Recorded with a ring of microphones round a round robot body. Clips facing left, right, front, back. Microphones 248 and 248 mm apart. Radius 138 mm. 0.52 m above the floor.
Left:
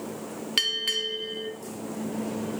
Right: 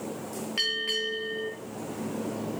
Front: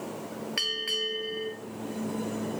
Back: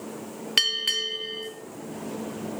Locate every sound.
0.6 s a bell: 135° left, 0.8 m